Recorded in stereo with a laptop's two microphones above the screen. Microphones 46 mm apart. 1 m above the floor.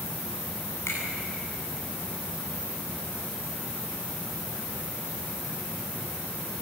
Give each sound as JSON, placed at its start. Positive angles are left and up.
{"t": 0.9, "sound": "a finger snap", "side_deg": 80, "distance_m": 9.5}